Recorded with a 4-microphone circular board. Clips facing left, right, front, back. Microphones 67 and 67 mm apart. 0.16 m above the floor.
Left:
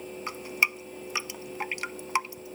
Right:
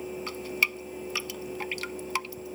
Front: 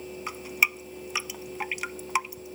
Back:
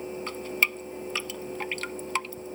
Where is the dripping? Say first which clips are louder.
Left 2 dB, front 1 dB; 55° left.